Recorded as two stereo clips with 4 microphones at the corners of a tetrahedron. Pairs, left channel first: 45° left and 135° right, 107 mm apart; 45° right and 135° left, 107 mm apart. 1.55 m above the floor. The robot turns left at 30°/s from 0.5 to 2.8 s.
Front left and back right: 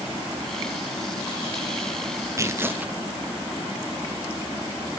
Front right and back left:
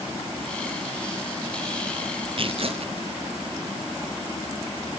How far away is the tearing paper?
About 0.6 m.